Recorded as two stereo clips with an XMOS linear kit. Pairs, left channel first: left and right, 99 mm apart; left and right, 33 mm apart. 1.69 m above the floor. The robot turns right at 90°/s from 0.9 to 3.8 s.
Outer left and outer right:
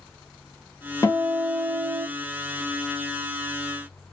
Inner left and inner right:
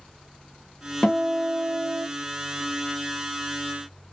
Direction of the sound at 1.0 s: 135° left.